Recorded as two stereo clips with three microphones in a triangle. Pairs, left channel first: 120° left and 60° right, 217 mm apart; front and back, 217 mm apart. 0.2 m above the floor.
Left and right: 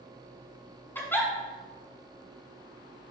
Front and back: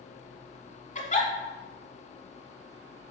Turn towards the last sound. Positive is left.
turn(degrees=45)